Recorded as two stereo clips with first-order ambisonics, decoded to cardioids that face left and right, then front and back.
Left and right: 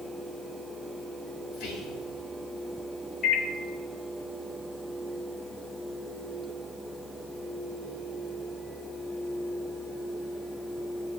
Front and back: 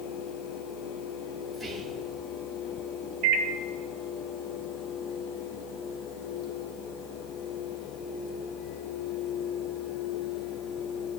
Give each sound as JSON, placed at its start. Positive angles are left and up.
{"t": 1.5, "sound": "whispering", "azimuth_deg": 85, "distance_m": 3.0}
{"t": 3.2, "sound": "a microwave", "azimuth_deg": 150, "distance_m": 0.9}